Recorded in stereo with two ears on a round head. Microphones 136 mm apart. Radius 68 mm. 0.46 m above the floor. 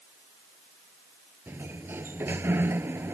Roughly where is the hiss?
I don't hear a hiss.